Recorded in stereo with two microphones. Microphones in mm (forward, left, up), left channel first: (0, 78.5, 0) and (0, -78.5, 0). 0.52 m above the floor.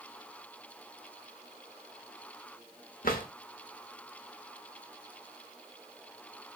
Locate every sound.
3.0 s a drawer: 60° left (ahead or behind), 0.8 m